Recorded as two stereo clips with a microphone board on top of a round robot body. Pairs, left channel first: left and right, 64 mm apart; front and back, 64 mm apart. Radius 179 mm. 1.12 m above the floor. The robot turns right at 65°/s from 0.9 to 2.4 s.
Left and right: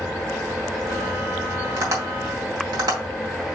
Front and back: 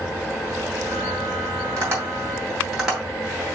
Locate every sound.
1.8 s tapping: 140° right, 3 m; by 3.5 s 95° right, 3 m